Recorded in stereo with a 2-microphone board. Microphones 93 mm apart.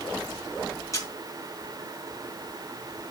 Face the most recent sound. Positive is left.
turn(degrees=35)  # may be behind; listen again after turning